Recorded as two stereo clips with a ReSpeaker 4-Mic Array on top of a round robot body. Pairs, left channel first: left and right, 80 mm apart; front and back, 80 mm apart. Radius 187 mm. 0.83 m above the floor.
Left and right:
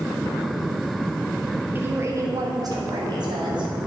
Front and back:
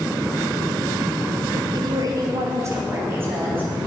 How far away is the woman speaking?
About 1.4 m.